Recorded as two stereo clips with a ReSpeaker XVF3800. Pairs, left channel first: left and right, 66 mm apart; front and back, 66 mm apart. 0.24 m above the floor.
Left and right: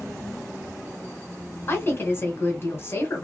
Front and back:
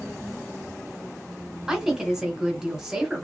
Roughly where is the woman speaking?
Left.